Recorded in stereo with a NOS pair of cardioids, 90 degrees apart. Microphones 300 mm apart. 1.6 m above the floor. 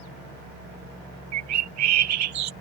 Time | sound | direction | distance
1.3 | a bird | 70° right | ?